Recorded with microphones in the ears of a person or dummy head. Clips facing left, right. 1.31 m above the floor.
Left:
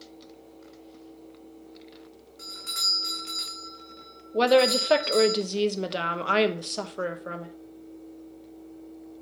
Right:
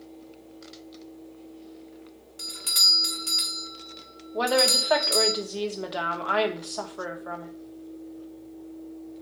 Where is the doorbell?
40° right (ahead or behind), 1.3 m.